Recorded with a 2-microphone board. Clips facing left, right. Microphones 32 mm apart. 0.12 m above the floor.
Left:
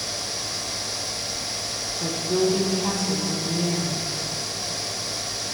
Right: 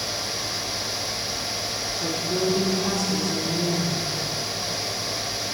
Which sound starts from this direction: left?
A woman speaking, at 2.0 s.